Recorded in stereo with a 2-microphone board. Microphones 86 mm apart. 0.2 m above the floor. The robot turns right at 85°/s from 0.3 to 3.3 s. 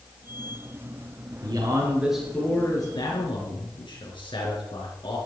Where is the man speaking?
65° right, 3.5 m; by 5.2 s 90° left, 3.5 m.